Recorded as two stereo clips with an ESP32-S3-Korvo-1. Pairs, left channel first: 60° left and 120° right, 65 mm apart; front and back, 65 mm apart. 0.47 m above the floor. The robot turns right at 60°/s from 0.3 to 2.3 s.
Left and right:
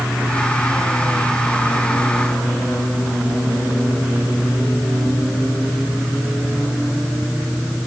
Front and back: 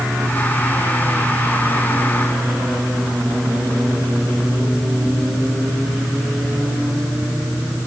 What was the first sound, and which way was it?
Only background noise.